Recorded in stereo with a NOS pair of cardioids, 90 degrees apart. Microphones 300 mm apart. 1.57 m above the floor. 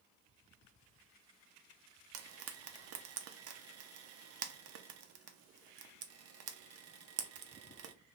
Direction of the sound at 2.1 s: 55° right.